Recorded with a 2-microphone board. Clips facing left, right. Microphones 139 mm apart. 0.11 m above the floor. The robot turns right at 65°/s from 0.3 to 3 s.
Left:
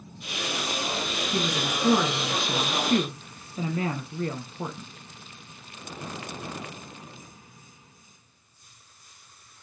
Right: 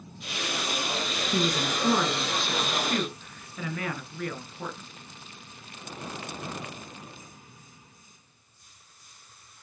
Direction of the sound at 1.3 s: 15° right (ahead or behind).